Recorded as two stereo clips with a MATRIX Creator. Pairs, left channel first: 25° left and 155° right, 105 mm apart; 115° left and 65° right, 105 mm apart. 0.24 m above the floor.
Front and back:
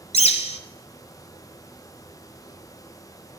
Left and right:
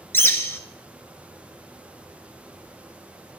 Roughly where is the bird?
Ahead left.